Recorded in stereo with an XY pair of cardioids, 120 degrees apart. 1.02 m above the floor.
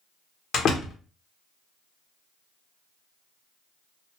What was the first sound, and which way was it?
A door slam, 50° left.